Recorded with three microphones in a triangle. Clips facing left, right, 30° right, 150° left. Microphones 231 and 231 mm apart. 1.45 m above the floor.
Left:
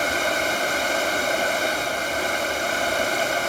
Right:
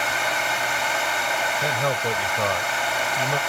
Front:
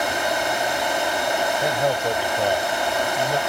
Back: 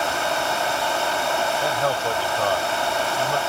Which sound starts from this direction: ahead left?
Running water, at 0.0 s.